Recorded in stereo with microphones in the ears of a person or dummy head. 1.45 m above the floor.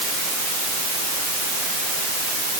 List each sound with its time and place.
Only background noise.